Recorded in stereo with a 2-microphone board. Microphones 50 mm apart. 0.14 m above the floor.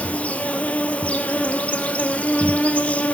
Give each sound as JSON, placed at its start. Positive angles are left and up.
{"t": 0.0, "sound": "an insect", "side_deg": 25, "distance_m": 1.7}